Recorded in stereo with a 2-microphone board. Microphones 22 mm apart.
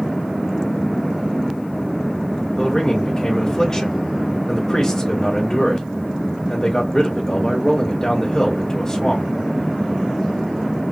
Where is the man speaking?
25° left (ahead or behind), 1.6 m.